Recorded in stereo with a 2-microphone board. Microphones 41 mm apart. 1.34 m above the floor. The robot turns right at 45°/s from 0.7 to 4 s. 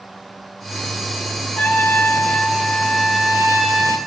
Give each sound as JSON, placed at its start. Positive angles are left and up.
{"t": 1.6, "sound": "a trumpet", "azimuth_deg": 130, "distance_m": 0.5}